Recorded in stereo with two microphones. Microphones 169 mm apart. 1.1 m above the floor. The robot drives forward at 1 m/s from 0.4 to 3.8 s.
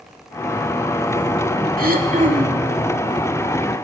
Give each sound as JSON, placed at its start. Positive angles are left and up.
{"t": 1.8, "sound": "throat clearing", "side_deg": -60, "distance_m": 2.5}